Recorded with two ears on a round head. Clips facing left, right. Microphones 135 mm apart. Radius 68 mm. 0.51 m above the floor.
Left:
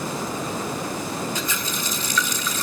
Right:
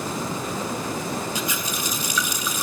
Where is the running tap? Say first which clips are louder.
Even; 10° right (ahead or behind), 0.8 m.